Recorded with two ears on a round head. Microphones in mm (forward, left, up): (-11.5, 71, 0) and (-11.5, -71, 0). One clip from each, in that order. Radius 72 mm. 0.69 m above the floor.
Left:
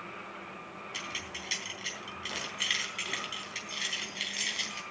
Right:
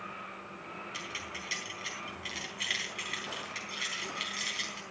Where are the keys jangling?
10° left (ahead or behind), 3.5 m.